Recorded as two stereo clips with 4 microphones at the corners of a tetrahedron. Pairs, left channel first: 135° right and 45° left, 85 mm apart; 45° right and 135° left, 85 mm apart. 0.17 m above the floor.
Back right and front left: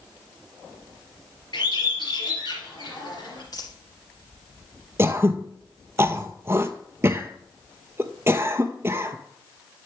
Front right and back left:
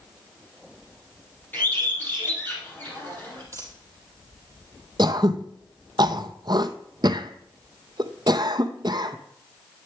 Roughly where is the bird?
Right.